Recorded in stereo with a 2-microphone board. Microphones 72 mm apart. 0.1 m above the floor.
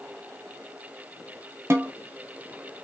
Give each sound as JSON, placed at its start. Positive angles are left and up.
{"t": 1.7, "sound": "a snare drum", "side_deg": -40, "distance_m": 0.7}